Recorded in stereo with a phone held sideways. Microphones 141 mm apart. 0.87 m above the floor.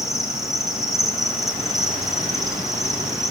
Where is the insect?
Centre (ahead or behind), 4.5 m.